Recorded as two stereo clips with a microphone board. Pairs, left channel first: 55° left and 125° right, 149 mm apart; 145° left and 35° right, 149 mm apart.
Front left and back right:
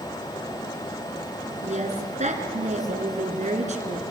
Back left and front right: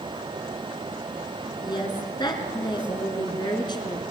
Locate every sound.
1.6 s a woman speaking: 155° right, 3.5 m